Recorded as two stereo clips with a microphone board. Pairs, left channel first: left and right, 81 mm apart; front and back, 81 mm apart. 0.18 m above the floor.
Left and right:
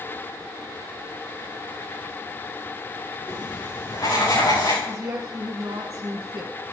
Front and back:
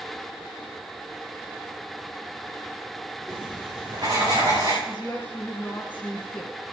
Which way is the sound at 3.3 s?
140° left.